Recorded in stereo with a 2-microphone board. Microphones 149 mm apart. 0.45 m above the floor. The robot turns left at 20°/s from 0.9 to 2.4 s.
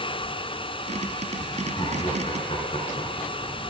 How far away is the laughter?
About 6 m.